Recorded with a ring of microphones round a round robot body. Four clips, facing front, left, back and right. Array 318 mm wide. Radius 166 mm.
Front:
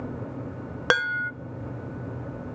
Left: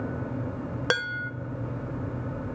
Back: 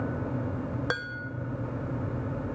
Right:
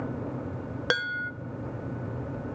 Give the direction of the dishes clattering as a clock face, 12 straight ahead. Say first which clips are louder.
Even, front 9 dB; 12 o'clock.